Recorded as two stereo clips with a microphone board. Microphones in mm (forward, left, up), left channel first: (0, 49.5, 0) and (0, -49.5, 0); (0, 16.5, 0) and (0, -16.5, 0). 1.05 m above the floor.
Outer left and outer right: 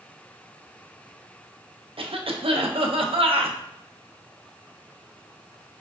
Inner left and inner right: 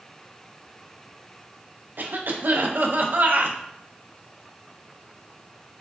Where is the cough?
65° right (ahead or behind), 0.6 m.